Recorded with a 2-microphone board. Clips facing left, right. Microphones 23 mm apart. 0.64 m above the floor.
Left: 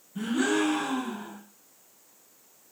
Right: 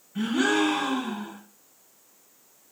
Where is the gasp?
45° right (ahead or behind), 0.8 m.